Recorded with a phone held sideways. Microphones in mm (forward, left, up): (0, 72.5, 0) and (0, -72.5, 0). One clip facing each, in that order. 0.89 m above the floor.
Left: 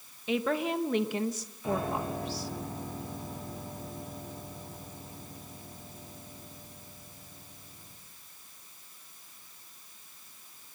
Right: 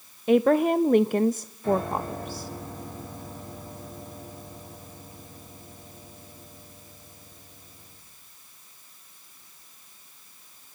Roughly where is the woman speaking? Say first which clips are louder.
Right 10 dB; right.